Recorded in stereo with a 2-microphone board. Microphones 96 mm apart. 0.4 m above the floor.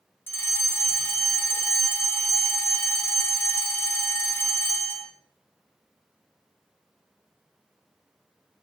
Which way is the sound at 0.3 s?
25° left (ahead or behind).